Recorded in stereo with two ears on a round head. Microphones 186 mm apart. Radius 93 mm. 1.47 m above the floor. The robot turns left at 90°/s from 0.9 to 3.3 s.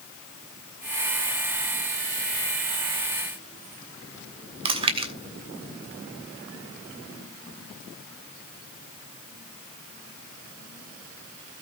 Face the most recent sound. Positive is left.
turn(degrees=-25)  # may be behind; listen again after turning